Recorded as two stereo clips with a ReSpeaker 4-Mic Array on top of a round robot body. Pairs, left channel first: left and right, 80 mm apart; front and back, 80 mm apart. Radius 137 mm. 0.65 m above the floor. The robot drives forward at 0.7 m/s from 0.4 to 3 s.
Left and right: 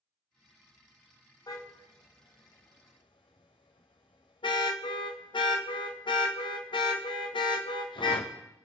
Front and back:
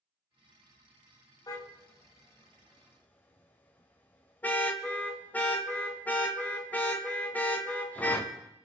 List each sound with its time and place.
1.5 s a car horn: 45° left, 2.5 m; by 8.3 s 70° left, 1.8 m